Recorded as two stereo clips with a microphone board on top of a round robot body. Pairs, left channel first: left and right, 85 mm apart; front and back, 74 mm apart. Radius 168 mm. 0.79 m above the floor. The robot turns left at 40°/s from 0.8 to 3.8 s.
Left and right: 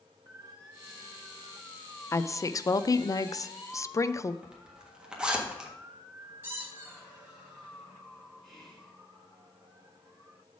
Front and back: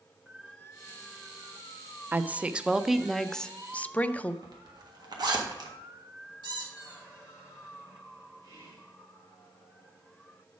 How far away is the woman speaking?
About 0.6 m.